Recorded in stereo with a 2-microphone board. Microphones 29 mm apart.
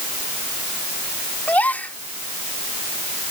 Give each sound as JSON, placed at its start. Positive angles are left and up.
{"t": 1.5, "sound": "a gasp", "side_deg": 70}